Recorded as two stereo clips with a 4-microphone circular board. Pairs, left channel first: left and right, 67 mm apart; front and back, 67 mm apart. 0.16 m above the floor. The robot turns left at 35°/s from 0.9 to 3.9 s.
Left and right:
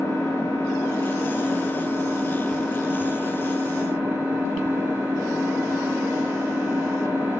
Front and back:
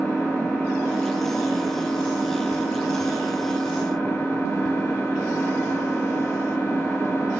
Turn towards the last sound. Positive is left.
turn(degrees=-45)